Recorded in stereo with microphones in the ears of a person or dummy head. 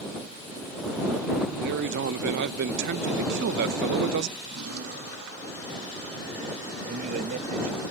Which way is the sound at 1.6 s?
60° right (ahead or behind).